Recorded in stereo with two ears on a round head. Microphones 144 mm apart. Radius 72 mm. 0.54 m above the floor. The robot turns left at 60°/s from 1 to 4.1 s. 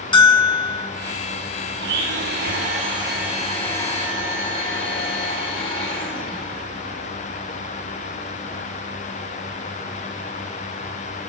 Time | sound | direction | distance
0.1 | a bell | 30° left (ahead or behind) | 0.7 m
1.8 | a blender | 75° right | 2.5 m